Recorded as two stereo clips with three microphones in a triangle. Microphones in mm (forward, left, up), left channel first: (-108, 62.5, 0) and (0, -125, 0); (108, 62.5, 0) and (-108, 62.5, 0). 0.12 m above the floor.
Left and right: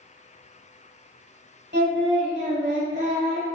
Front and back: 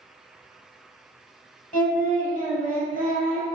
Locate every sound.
1.7 s singing: 40° right, 1.8 m